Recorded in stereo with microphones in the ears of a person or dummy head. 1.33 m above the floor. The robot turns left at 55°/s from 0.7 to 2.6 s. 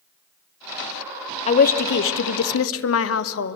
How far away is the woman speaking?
About 0.7 m.